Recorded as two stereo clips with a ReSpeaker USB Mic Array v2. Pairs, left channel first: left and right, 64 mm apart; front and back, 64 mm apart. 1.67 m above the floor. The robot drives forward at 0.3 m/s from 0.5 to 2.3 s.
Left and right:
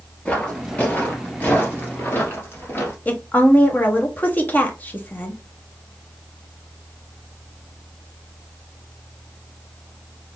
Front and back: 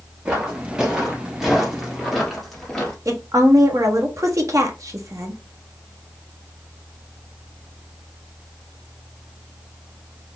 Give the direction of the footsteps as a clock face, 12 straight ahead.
8 o'clock.